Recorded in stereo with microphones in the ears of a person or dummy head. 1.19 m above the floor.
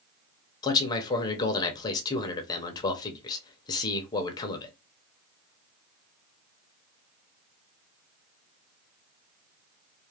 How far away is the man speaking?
About 0.7 m.